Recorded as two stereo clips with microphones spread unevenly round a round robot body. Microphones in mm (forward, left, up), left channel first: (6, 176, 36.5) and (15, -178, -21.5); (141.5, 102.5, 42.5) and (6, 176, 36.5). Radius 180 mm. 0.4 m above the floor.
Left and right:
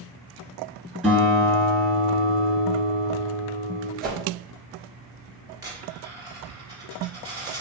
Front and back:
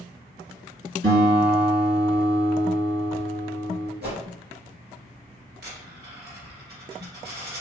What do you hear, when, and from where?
1.0 s a guitar: 175° right, 1.7 m
4.0 s a whoosh: 155° right, 1.2 m
5.6 s a dropped coin: 170° right, 1.5 m